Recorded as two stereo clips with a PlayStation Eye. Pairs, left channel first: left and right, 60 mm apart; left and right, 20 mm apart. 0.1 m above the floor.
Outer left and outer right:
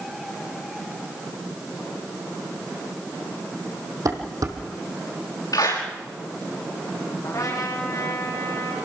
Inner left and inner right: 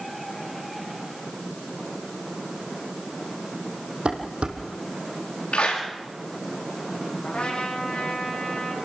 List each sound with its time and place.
4.0 s dishes clattering: 70° right (ahead or behind), 3 m
5.5 s a clap: 80° left, 8 m
7.2 s a trumpet: 70° left (ahead or behind), 6 m